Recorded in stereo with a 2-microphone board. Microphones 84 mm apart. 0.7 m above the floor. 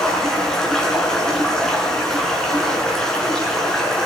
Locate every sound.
0.0 s running water: 5° left (ahead or behind), 5 m